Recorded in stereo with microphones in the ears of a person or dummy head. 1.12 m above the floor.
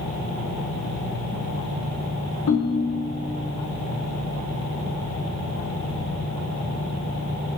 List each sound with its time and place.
2.5 s a ringtone: 70° left (ahead or behind), 0.9 m